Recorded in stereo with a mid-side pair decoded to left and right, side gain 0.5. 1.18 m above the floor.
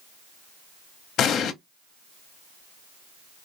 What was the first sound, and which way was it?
An explosion, 60° left.